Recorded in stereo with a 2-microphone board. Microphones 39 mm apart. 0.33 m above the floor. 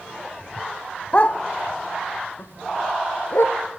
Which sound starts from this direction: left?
A dog barking, at 1.1 s.